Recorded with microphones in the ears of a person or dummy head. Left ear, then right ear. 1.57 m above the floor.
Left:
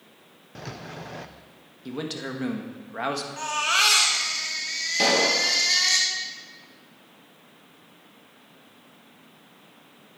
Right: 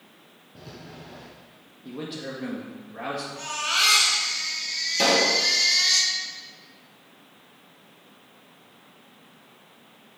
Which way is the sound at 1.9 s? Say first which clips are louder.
Left 2 dB; 75° left (ahead or behind).